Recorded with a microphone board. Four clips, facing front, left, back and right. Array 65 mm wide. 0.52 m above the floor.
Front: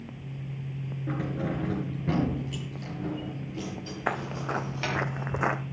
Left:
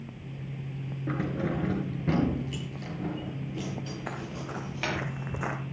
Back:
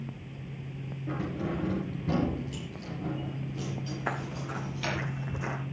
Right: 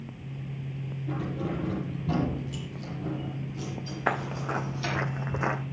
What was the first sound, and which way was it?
Keys jangling, 70° left.